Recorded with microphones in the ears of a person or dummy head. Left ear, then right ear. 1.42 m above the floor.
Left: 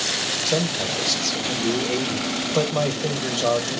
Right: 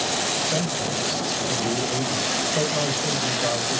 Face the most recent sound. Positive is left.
turn(degrees=75)  # may be behind; listen again after turning